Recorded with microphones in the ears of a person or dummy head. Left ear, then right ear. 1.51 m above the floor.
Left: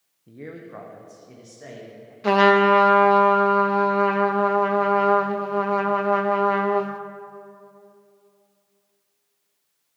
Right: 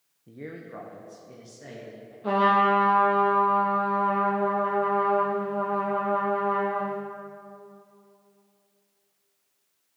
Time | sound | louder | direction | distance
0.3 | a man speaking | left 2 dB | 5° right (ahead or behind) | 0.6 m
2.2 | a trumpet | left 5 dB | 70° left (ahead or behind) | 0.8 m